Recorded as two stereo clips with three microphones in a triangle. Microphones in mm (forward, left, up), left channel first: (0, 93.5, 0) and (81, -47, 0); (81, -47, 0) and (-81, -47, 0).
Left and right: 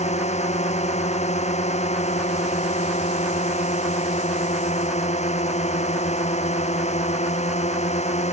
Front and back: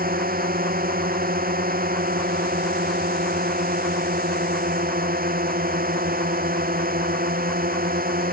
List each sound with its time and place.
0.0 s a drone: 165° left